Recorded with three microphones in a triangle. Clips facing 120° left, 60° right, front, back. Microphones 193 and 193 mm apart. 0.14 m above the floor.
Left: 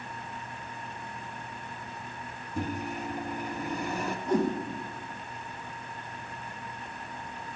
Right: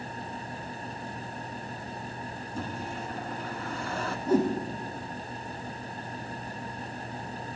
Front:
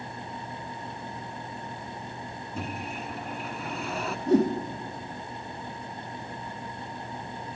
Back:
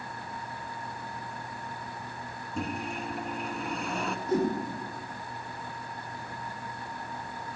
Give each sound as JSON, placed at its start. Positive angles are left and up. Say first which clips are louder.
{"t": 2.6, "sound": "a microwave", "louder": "left 4 dB, back 2 dB", "azimuth_deg": 85, "distance_m": 0.9}
{"t": 4.3, "sound": "a whoosh", "louder": "right 3 dB, front 6 dB", "azimuth_deg": 25, "distance_m": 3.0}